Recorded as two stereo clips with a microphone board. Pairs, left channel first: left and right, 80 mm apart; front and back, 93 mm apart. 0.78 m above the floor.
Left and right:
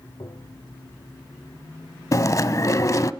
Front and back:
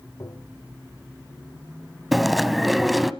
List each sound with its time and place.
0.2 s tapping: 55° left, 2.0 m
2.1 s chewing: 95° left, 0.7 m